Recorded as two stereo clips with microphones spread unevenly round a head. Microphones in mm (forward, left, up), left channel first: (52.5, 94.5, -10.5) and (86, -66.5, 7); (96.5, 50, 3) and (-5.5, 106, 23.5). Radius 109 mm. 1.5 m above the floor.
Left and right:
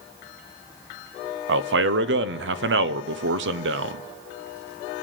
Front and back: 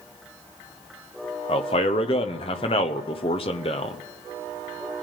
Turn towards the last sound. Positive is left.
turn(degrees=-80)